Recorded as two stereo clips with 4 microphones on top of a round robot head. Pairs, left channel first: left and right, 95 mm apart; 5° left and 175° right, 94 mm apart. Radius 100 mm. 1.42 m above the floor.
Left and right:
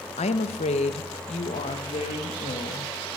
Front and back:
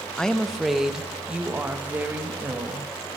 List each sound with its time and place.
0.2 s a woman speaking: 85° left, 1.2 m; by 2.9 s 115° left, 2.5 m